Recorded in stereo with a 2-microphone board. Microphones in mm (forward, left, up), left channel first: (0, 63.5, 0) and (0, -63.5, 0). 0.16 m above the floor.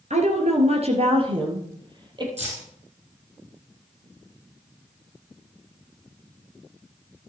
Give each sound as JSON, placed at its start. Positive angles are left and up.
{"t": 0.1, "sound": "a woman speaking", "side_deg": -60, "distance_m": 2.5}
{"t": 2.4, "sound": "keys jangling", "side_deg": -55, "distance_m": 4.0}